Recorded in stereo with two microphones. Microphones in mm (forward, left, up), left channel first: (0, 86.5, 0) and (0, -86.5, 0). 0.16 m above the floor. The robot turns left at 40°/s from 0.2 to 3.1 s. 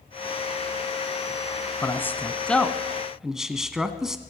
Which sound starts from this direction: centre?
A man speaking, at 1.8 s.